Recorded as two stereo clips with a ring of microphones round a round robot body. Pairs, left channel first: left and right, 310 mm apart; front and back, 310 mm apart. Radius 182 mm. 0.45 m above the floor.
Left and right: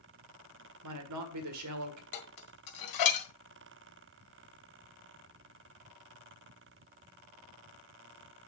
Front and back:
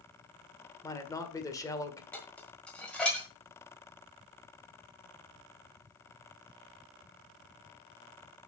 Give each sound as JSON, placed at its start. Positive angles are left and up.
{"t": 0.8, "sound": "a man speaking", "azimuth_deg": -80, "distance_m": 1.7}
{"t": 2.1, "sound": "dishes clattering", "azimuth_deg": 85, "distance_m": 1.8}